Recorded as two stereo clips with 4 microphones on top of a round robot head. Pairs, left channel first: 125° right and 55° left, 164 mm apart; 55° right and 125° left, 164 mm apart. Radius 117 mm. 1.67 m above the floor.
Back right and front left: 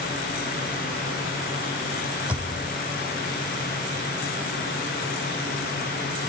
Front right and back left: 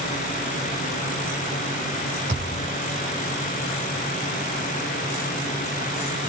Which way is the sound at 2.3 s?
135° left.